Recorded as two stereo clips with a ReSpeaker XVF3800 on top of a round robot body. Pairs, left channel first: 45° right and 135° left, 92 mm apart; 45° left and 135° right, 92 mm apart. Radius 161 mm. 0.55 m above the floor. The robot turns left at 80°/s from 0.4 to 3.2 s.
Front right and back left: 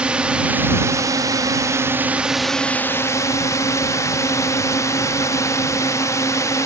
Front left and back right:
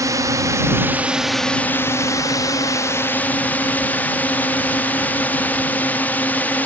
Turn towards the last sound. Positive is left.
turn(degrees=-15)